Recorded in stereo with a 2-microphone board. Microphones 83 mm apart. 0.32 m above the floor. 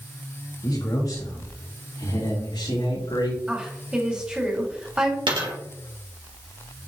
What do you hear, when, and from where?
0.6 s a man speaking: 55° left (ahead or behind), 3.5 m; by 3.4 s 75° left (ahead or behind), 5 m
3.5 s a woman speaking: 10° right (ahead or behind), 2 m
5.3 s a dropped coin: 85° right, 2.5 m